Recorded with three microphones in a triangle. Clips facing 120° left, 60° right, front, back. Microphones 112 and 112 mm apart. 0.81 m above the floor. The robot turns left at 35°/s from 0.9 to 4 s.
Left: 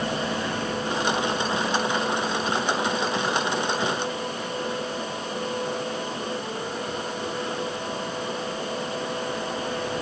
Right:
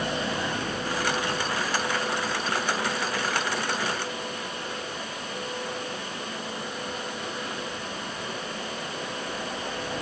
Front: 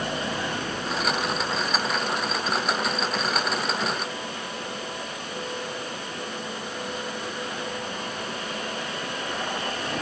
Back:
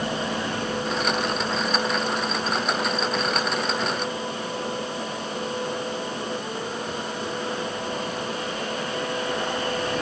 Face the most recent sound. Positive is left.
No sound to turn to.